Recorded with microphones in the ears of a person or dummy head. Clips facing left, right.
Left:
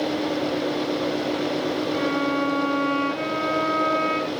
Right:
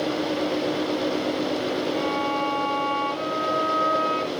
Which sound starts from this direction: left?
A violin, at 1.9 s.